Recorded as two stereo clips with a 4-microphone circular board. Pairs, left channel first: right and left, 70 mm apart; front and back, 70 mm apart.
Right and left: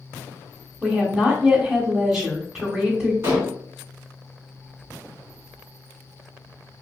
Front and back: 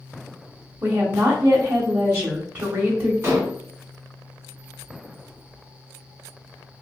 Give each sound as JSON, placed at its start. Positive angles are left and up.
{"t": 0.8, "sound": "a woman speaking", "azimuth_deg": 160, "distance_m": 0.9}
{"t": 3.2, "sound": "dishes clattering", "azimuth_deg": 130, "distance_m": 1.4}